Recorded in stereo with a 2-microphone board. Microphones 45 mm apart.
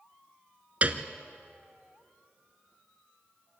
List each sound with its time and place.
0.8 s a piano: 35° right (ahead or behind), 1.1 m